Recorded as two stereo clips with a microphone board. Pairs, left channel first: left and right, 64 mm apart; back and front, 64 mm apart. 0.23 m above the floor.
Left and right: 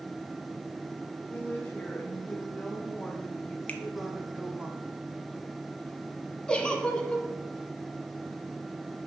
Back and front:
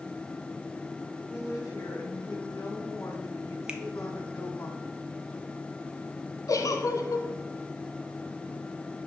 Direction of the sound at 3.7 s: 55° left.